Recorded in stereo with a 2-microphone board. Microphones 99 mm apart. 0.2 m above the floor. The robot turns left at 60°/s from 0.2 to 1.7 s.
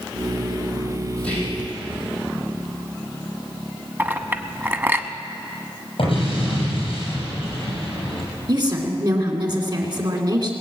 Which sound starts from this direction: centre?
Whispering, at 1.2 s.